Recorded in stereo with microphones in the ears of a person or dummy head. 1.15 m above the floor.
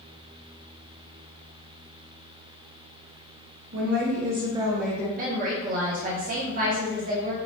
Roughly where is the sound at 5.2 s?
Right.